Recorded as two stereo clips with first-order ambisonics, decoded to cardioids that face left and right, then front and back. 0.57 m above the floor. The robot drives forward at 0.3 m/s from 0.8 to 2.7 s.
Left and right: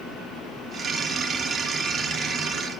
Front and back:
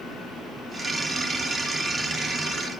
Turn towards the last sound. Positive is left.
No sound to turn to.